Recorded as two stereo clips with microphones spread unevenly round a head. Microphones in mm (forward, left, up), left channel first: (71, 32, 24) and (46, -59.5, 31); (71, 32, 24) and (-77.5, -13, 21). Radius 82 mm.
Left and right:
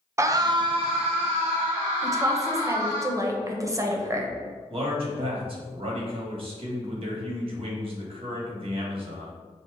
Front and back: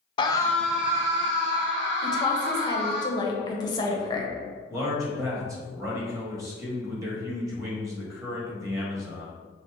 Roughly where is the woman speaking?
Ahead right.